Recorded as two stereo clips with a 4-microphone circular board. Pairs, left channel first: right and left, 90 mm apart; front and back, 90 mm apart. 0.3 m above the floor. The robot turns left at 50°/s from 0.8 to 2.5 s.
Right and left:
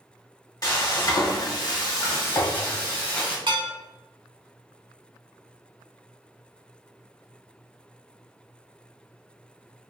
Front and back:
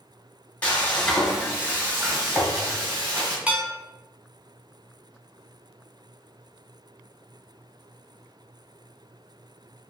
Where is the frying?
65° right, 1.4 m; by 3.4 s 150° right, 1.4 m.